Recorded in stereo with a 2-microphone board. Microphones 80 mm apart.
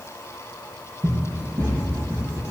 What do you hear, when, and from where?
1.0 s running footsteps: 50° right (ahead or behind), 4.5 m; by 2.4 s 45° right (ahead or behind), 6.5 m